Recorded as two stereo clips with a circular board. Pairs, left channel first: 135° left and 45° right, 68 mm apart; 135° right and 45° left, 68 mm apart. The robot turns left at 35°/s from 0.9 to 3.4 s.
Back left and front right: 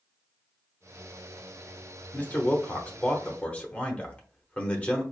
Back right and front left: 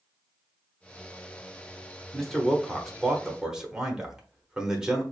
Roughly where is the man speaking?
Behind left.